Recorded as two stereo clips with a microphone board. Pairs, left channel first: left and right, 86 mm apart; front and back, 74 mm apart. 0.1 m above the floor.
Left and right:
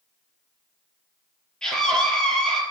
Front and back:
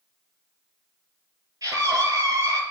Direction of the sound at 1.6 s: 170° left.